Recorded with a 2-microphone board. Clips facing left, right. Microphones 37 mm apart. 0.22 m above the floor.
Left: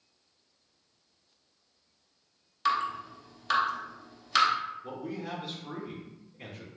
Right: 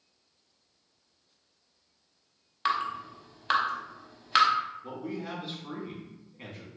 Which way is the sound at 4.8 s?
20° right (ahead or behind).